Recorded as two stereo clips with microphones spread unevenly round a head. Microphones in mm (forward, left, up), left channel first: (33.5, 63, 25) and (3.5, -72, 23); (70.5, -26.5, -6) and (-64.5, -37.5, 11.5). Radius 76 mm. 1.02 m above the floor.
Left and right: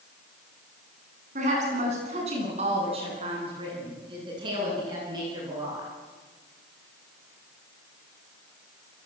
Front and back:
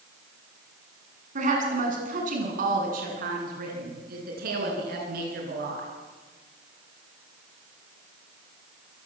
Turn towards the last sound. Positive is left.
turn(degrees=-170)